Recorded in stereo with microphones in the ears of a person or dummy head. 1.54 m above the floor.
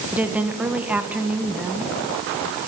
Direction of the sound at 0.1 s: 5° right (ahead or behind).